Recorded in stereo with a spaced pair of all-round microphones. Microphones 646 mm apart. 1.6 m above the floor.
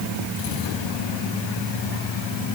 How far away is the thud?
I don't hear a thud.